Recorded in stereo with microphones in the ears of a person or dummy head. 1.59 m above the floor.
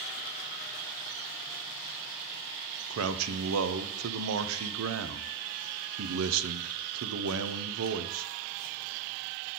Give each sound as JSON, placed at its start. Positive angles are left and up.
{"t": 2.9, "sound": "a man speaking", "side_deg": -80, "distance_m": 0.6}